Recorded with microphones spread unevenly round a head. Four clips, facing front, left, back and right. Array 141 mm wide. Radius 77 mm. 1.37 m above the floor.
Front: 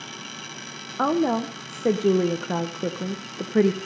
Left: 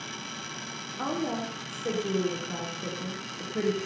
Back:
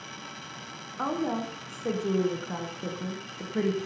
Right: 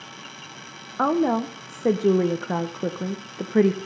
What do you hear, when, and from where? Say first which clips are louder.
1.0 s a woman speaking: right 10 dB, front 7 dB; 40° right, 0.7 m